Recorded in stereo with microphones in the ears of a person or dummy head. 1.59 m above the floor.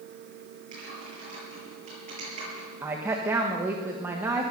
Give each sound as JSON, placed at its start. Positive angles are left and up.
{"t": 0.7, "sound": "typing on a keyboard", "side_deg": -45, "distance_m": 8.0}
{"t": 2.8, "sound": "a woman speaking", "side_deg": -15, "distance_m": 1.5}